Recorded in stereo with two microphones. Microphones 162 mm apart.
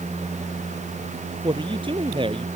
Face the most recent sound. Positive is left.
turn(degrees=-30)  # may be behind; listen again after turning